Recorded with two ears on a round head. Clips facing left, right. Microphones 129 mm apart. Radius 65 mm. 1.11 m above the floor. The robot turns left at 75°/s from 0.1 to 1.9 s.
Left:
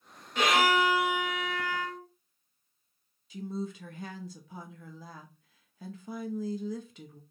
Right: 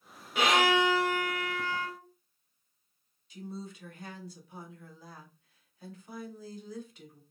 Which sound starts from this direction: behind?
A violin, at 0.3 s.